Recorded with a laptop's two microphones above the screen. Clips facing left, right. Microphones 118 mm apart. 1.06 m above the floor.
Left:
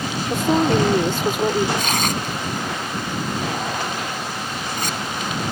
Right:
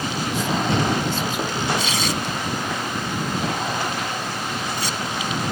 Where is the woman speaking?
60° left (ahead or behind).